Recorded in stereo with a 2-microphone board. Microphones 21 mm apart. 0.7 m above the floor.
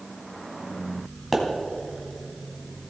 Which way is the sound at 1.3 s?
Centre (ahead or behind).